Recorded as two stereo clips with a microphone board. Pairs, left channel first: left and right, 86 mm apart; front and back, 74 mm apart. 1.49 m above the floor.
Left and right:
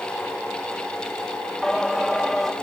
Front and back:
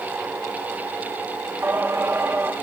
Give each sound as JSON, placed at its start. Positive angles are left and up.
{"t": 1.6, "sound": "singing", "azimuth_deg": 175, "distance_m": 1.0}